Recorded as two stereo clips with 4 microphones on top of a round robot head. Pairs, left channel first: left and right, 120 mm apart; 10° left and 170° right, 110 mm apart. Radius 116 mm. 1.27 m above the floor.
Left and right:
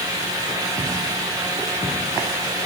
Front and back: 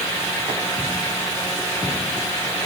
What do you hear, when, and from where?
Only background noise.